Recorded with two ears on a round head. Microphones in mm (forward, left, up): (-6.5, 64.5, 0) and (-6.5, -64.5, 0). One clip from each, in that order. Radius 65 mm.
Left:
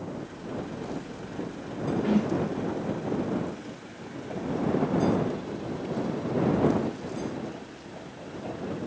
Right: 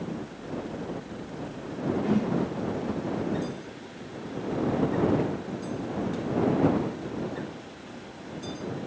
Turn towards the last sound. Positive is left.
turn(degrees=20)  # may be behind; listen again after turning